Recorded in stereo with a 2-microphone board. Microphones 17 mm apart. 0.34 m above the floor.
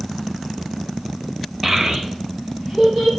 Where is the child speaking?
25° right (ahead or behind), 0.6 m; by 3.1 s 55° right (ahead or behind), 1.6 m.